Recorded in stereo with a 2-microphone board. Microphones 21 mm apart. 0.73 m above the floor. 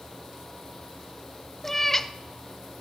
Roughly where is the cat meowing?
Centre.